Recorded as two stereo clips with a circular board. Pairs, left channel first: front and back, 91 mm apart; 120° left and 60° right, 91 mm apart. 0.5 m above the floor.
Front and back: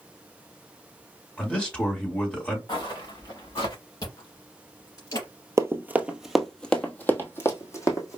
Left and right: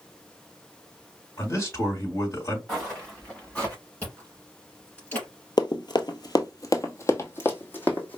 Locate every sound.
1.4 s a man speaking: 70° left, 1.9 m
2.7 s footsteps: 35° left, 3 m; by 3.8 s 45° left, 4 m
4.0 s chewing: 45° left, 3.5 m
5.6 s running footsteps: 130° left, 0.7 m; by 8.2 s 50° left, 1.5 m